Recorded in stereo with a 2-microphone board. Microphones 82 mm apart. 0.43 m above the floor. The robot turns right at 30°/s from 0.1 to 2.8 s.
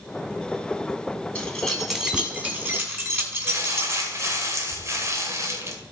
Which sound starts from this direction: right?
Crumpling, at 3.5 s.